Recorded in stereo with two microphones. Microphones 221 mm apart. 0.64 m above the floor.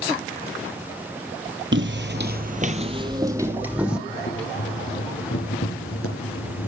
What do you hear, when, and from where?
1.7 s footsteps: 60° right (ahead or behind), 1.1 m; by 4.0 s 5° right (ahead or behind), 2 m
4.1 s boiling: 90° left, 4.5 m